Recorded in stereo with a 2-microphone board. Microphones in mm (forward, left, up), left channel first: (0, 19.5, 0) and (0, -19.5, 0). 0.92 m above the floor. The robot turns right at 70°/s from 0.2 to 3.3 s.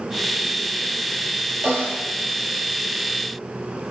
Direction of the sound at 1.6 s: 65° right (ahead or behind).